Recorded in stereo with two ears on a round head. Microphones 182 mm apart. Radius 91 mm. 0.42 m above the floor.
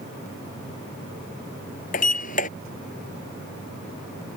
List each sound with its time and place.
1.9 s a sliding door: 40° left (ahead or behind)